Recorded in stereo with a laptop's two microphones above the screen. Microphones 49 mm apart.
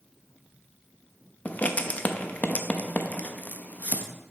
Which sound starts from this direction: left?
Writing, at 1.4 s.